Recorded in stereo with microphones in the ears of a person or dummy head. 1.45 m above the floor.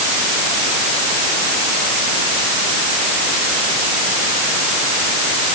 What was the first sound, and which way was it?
Only background noise.